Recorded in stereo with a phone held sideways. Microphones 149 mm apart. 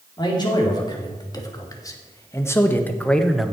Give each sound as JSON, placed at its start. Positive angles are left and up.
{"t": 0.2, "sound": "a man speaking", "side_deg": 30, "distance_m": 2.5}